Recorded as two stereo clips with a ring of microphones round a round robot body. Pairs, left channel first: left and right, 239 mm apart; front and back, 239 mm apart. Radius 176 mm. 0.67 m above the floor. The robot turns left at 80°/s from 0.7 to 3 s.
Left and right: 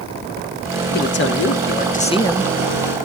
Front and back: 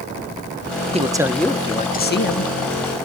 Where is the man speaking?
125° left, 1.1 m; by 2.5 s straight ahead, 1.1 m.